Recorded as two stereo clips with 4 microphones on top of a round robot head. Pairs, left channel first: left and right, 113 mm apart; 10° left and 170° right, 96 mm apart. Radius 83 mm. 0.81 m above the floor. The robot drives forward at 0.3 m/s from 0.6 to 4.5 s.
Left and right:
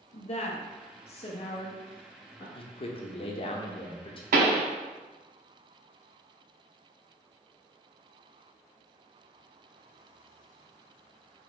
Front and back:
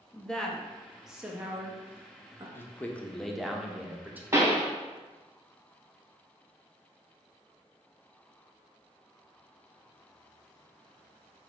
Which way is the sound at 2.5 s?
70° left.